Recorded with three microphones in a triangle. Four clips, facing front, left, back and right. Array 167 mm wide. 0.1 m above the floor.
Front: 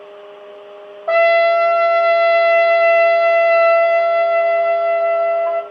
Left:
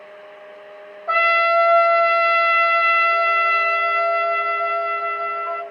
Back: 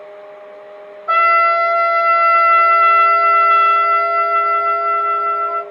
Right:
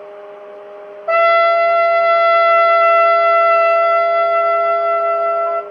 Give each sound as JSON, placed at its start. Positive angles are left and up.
{"t": 1.1, "sound": "a trumpet", "azimuth_deg": -5, "distance_m": 3.0}